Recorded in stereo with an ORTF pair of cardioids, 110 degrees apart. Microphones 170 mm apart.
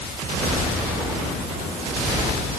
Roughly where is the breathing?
No breathing in this recording.